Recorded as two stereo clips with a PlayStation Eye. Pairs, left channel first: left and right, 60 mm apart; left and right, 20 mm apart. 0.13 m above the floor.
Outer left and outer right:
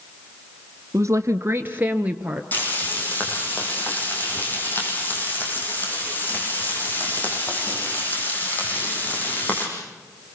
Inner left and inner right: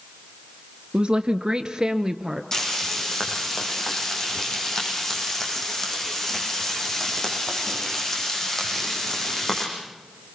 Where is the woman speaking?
50° right (ahead or behind), 1.6 m; by 2.4 s 15° right (ahead or behind), 2 m.